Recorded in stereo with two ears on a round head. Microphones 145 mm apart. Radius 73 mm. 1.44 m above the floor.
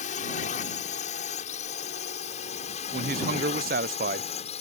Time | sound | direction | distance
0.0 | a drone | 55° left (ahead or behind) | ?
2.9 | a man speaking | 60° right (ahead or behind) | ?